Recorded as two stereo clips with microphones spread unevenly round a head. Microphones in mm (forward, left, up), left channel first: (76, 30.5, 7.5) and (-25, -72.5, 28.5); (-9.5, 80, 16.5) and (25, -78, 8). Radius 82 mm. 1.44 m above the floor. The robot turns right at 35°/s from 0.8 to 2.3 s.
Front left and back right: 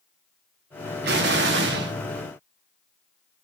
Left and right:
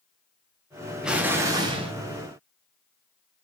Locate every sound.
1.0 s an explosion: 165° right, 1.5 m; by 1.9 s 130° right, 1.5 m